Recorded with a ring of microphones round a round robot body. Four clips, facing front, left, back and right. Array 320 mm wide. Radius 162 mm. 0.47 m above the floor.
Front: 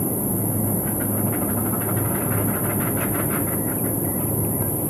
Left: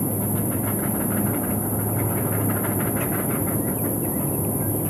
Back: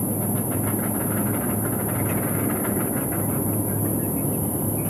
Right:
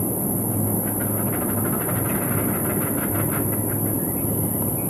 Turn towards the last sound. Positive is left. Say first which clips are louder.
# even, front 1 dB
turn(degrees=-50)